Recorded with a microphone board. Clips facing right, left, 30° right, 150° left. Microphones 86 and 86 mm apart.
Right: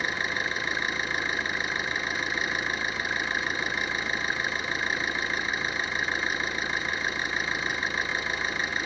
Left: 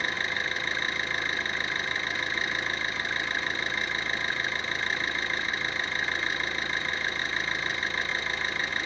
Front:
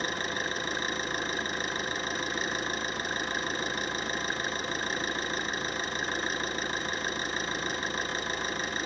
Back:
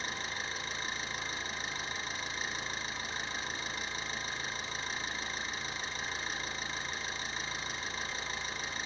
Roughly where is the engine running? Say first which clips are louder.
Right 1 dB, front 7 dB; ahead.